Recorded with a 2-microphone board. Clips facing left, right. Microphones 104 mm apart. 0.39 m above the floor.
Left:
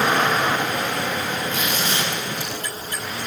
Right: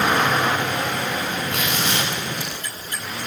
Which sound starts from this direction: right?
Tearing paper, at 1.5 s.